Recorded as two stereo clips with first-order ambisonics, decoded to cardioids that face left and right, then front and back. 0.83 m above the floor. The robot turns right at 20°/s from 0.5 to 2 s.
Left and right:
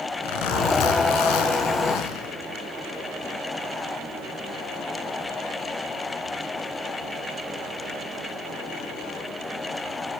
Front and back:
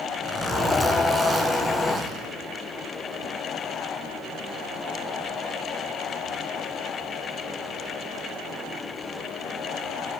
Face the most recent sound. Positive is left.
turn(degrees=110)